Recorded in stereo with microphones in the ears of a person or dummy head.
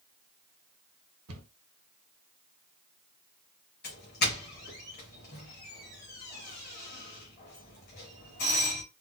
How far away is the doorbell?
About 1.3 m.